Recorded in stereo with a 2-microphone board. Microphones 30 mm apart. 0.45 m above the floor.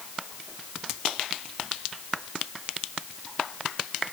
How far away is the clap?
I don't hear a clap.